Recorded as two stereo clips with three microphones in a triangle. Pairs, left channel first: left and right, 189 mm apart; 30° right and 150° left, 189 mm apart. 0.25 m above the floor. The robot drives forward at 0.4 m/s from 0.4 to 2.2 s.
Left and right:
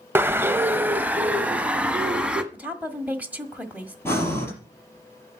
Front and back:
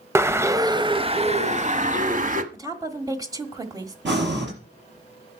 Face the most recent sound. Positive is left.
turn(degrees=170)